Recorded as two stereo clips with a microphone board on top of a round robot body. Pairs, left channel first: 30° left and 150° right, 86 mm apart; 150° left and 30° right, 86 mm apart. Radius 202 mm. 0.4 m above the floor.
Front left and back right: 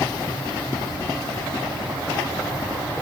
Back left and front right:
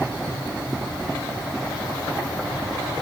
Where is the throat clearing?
I don't hear throat clearing.